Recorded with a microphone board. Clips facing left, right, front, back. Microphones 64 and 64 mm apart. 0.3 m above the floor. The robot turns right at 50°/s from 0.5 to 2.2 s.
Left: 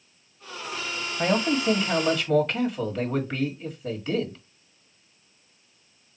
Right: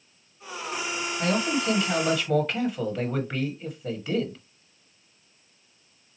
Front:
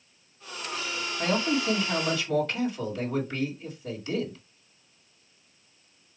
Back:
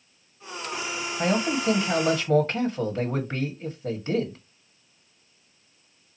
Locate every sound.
1.2 s a man speaking: 130° left, 1.7 m; by 4.4 s 175° right, 1.7 m